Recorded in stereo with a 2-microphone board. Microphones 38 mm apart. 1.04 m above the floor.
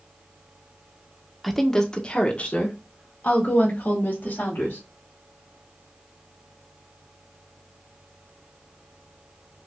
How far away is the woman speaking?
About 0.8 m.